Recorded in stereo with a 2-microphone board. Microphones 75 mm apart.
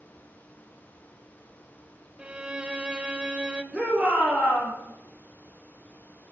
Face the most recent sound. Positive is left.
turn(degrees=-10)  # may be behind; listen again after turning